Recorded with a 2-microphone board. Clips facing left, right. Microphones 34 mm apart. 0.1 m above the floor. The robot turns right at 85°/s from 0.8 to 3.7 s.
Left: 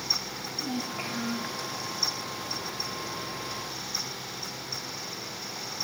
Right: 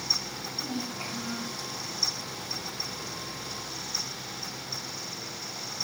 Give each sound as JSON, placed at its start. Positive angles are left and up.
{"t": 0.3, "sound": "a child speaking", "azimuth_deg": 45, "distance_m": 7.0}